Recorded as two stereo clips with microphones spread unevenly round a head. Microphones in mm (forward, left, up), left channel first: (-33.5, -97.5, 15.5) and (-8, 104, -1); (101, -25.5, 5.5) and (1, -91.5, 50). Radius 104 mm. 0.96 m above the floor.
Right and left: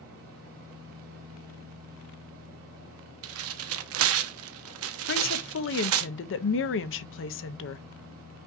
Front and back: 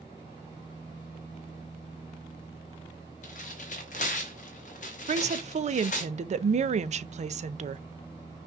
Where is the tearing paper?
95° left, 0.6 m.